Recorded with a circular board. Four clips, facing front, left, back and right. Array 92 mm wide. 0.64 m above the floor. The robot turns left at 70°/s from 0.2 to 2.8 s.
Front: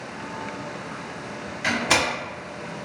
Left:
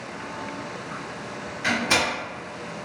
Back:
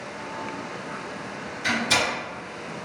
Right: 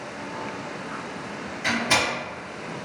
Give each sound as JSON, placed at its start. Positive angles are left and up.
{"t": 1.6, "sound": "a door slam", "azimuth_deg": 15, "distance_m": 1.1}